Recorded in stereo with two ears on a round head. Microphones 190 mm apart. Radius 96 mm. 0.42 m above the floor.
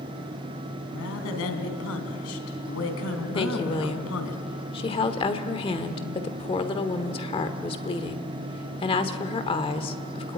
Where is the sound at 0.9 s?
75° left (ahead or behind), 3.5 m.